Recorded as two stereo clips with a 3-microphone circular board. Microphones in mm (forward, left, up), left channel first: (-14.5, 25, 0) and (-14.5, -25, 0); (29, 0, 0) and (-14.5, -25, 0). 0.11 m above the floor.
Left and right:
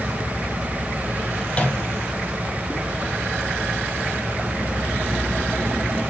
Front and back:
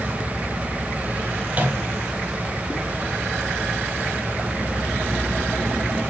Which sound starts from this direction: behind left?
A microwave, at 1.5 s.